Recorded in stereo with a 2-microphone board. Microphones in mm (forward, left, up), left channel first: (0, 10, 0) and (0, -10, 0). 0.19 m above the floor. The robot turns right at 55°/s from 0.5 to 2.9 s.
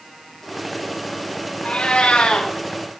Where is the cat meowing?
80° left, 8 m; by 2.5 s 125° left, 8 m.